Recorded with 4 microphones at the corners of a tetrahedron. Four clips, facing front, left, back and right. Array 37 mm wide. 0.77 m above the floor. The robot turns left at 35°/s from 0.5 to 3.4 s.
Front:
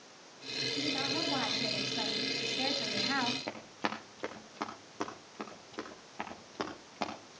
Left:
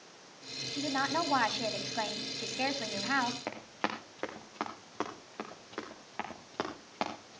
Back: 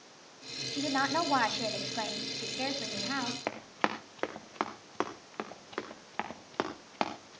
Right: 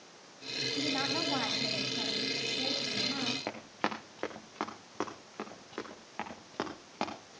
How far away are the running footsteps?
About 3 m.